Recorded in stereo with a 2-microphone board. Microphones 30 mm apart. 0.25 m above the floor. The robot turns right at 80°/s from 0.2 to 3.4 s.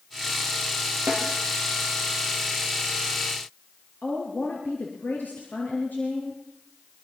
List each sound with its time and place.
1.1 s a snare drum: 85° right, 7 m; by 1.3 s 75° right (ahead or behind), 7 m
4.0 s a woman speaking: 75° left (ahead or behind), 4 m